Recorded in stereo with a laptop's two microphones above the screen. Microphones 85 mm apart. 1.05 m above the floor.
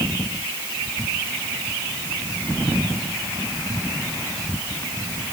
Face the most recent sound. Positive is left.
No sound to turn to.